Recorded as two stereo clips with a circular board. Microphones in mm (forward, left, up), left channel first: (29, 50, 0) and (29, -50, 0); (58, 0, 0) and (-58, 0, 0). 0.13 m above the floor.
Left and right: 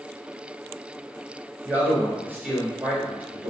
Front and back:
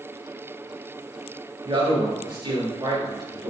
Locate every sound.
1.6 s a man speaking: 155° right, 2 m